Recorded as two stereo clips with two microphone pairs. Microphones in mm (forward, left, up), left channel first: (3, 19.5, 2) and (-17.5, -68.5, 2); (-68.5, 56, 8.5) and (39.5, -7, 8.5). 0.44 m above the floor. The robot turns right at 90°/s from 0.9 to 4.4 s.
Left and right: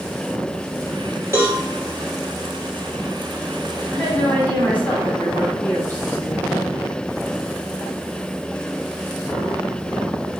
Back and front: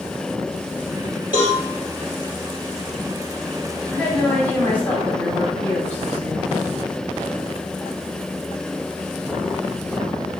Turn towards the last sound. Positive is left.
turn(degrees=100)